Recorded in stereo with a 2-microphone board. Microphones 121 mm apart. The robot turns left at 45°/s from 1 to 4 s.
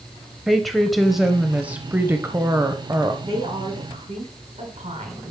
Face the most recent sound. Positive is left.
turn(degrees=-80)